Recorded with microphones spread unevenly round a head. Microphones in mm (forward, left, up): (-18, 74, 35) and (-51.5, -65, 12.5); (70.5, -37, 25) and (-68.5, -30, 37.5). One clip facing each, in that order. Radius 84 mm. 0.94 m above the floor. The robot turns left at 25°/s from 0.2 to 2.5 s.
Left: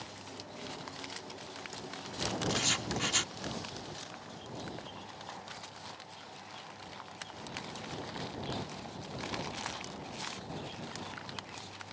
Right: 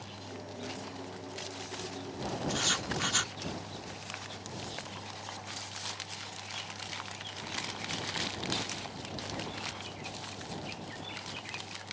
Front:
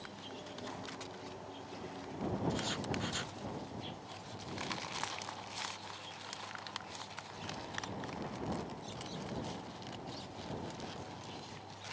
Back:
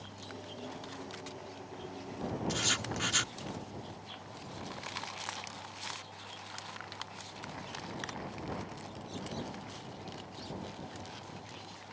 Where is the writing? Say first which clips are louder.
Even, even; 150° left.